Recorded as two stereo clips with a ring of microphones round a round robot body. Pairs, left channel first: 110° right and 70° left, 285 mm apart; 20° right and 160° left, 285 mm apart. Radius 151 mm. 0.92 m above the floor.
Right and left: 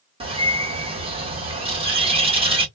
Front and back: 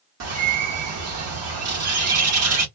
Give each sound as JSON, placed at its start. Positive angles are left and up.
{"t": 0.2, "sound": "a bird", "azimuth_deg": 135, "distance_m": 1.5}